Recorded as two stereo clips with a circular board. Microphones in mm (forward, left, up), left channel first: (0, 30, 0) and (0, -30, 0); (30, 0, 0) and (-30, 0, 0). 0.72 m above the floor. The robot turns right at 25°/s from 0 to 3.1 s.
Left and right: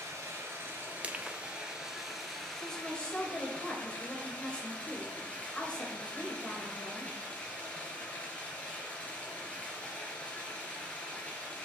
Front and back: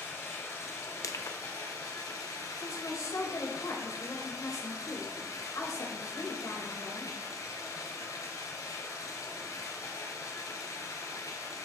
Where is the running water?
55° right, 2.5 m; by 11.7 s 20° left, 2.5 m.